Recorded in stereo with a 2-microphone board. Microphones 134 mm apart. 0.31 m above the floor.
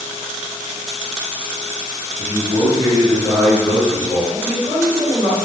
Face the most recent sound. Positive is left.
turn(degrees=-5)  # may be behind; listen again after turning